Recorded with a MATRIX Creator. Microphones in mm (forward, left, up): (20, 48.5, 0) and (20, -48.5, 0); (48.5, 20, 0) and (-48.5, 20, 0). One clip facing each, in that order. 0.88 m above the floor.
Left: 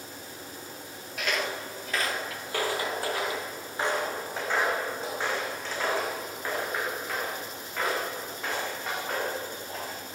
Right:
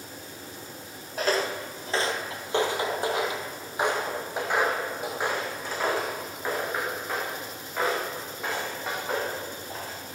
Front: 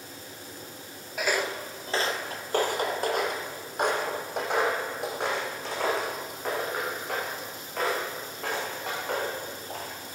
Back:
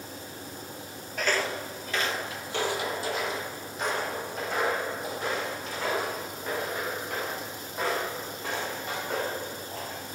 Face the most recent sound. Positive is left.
turn(degrees=-10)